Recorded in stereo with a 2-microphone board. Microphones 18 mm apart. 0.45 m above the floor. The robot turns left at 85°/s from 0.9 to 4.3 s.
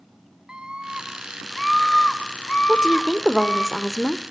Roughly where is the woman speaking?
Right.